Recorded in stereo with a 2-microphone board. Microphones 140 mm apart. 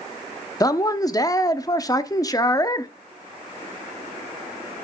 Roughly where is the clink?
I don't hear a clink.